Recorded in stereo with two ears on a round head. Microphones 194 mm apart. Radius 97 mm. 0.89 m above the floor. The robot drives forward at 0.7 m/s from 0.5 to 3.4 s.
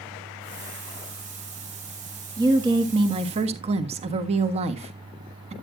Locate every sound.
2.4 s a woman speaking: 20° right (ahead or behind), 1.8 m; by 5.5 s 30° right (ahead or behind), 1.2 m